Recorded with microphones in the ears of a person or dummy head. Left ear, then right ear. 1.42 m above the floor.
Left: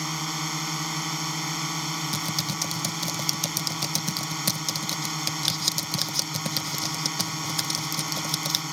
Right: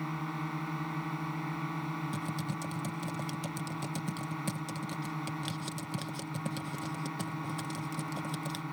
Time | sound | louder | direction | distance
0.0 | a drone | left 8 dB | 70° left (ahead or behind) | ?
2.1 | typing on a keyboard | left 10 dB | 50° left (ahead or behind) | ?